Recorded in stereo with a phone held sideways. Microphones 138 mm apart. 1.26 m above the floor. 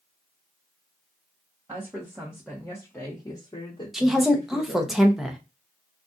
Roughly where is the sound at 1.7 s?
Right.